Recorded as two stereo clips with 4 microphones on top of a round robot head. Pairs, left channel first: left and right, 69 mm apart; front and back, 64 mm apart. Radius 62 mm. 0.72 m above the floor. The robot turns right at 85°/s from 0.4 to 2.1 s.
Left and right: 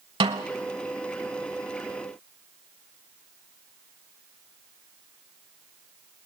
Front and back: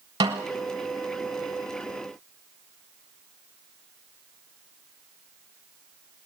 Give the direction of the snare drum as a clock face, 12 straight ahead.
4 o'clock.